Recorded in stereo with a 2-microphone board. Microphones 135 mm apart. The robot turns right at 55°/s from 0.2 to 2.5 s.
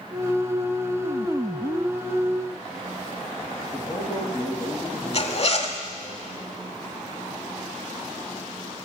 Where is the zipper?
50° left (ahead or behind), 1.1 m.